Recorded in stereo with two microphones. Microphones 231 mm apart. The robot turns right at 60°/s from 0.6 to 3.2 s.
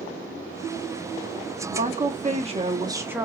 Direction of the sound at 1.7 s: 100° right.